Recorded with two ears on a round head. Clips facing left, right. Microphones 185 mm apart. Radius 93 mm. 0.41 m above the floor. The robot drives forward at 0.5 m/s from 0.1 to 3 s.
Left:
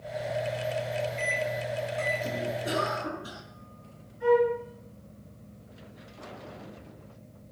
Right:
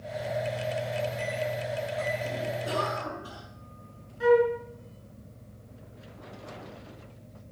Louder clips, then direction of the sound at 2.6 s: Left 1 dB; 25° left (ahead or behind).